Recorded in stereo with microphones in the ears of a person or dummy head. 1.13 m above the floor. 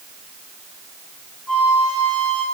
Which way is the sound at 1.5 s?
Centre (ahead or behind).